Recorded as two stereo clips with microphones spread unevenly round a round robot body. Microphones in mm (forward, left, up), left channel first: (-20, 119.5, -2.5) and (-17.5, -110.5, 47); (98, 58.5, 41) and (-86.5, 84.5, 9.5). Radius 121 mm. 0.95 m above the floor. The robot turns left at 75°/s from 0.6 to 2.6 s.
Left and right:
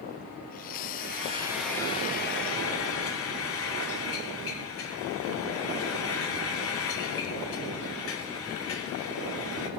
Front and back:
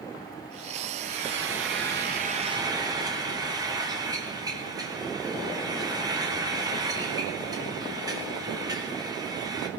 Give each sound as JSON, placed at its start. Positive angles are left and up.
{"t": 1.0, "sound": "frying", "azimuth_deg": -135, "distance_m": 2.5}